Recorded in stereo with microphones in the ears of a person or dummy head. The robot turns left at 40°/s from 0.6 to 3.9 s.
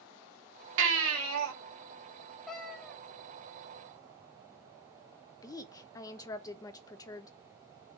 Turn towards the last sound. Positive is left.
turn(degrees=20)  # may be behind; listen again after turning